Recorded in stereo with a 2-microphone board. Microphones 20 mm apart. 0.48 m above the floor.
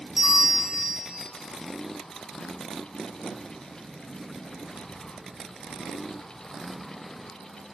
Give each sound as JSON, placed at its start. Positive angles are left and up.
{"t": 0.2, "sound": "a bell", "side_deg": -20, "distance_m": 2.5}